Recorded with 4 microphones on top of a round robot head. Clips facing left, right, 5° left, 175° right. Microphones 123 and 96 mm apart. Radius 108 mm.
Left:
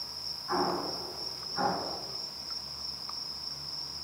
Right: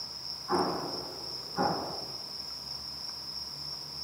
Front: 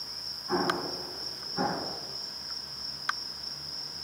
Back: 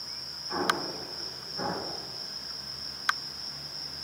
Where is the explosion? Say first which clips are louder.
Right 1 dB, front 1 dB; 15° right, 7 m.